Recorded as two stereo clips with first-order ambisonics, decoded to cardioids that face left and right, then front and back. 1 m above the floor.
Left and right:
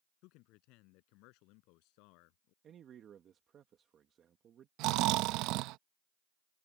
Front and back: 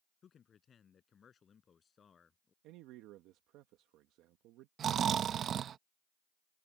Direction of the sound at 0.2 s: 65° left.